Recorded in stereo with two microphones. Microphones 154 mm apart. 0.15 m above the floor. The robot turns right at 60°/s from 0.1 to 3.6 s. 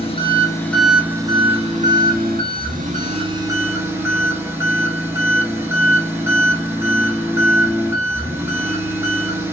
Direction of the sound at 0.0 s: 135° left.